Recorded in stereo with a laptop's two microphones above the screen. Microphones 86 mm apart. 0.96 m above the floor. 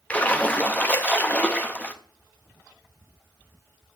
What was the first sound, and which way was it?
A splash, 15° left (ahead or behind).